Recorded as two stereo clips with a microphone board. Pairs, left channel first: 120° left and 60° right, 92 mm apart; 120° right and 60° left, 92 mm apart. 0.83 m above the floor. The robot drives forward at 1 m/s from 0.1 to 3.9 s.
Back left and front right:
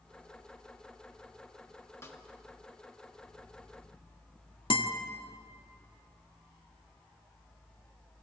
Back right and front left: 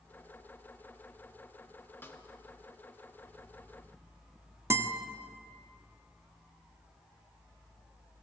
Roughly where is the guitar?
Behind left.